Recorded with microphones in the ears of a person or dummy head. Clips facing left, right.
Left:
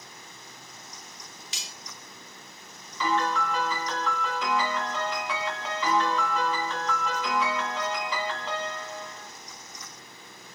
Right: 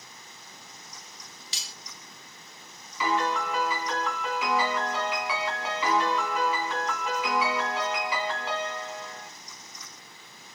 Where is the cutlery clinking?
35° right (ahead or behind), 1.1 m.